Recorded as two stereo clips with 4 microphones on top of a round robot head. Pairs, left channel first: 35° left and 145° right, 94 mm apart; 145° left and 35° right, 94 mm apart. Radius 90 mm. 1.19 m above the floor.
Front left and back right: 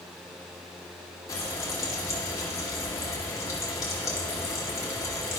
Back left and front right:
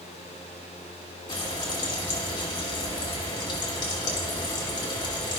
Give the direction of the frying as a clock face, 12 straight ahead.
9 o'clock.